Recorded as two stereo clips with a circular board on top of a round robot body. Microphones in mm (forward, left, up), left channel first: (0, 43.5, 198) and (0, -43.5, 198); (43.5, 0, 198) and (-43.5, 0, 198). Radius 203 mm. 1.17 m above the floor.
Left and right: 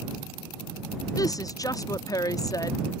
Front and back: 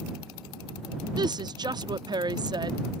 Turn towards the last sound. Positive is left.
turn(degrees=140)